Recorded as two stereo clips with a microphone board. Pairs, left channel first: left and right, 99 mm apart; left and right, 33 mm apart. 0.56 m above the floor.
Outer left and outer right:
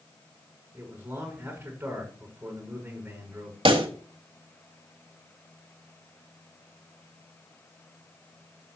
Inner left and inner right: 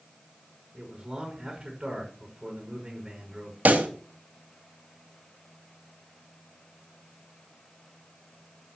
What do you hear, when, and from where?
0.7 s a man speaking: 20° right (ahead or behind), 6 m
3.6 s a pop: 60° right (ahead or behind), 1.5 m